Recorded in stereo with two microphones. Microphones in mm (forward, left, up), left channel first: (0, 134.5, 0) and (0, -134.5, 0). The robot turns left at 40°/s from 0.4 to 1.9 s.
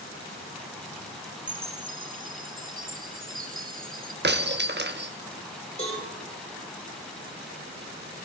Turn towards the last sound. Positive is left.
turn(degrees=25)  # may be behind; listen again after turning